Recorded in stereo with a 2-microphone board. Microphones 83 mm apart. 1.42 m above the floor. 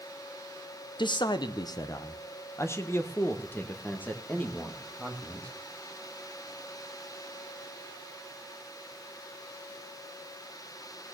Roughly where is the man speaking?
Left.